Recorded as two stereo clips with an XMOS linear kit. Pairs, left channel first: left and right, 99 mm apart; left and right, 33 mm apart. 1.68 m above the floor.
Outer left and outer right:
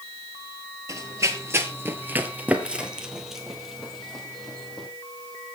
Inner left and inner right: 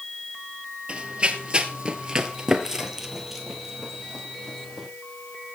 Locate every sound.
0.9 s running footsteps: 30° right (ahead or behind), 2.0 m; by 4.9 s 5° left (ahead or behind), 4 m